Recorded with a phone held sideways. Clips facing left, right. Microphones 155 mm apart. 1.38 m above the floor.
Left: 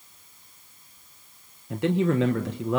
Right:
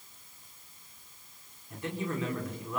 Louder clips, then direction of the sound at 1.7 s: Left 12 dB; 75° left (ahead or behind).